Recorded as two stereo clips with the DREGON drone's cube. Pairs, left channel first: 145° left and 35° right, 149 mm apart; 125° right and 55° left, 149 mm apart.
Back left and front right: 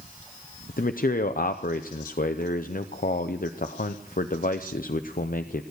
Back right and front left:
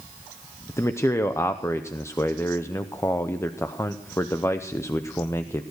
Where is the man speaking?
165° left, 0.6 m.